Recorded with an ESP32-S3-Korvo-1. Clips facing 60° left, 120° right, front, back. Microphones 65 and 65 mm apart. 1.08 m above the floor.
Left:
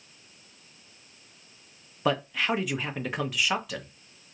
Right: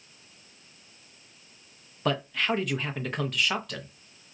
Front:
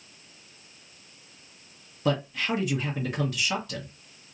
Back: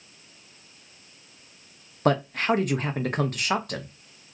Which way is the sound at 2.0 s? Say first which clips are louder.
Left 1 dB, back 4 dB; 145° left.